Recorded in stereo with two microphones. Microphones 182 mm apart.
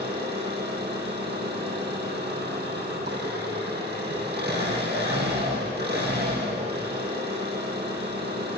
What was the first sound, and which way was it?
An engine running, 80° right.